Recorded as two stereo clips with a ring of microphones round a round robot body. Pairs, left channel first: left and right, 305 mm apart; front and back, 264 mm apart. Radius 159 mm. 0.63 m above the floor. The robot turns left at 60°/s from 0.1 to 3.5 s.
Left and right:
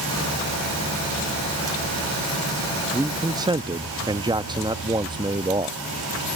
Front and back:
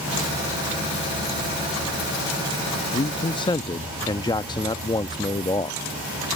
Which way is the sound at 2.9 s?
10° right.